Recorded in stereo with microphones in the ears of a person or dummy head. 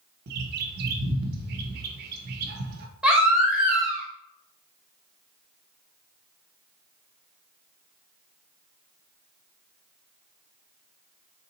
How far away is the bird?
About 0.6 m.